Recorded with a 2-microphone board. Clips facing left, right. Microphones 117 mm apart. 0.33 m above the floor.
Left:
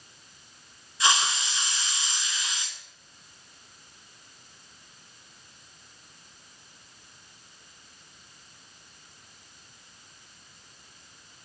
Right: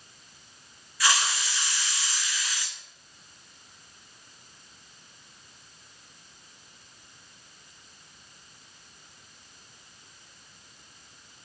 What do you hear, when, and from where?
1.0 s a hiss: 20° left (ahead or behind), 1.0 m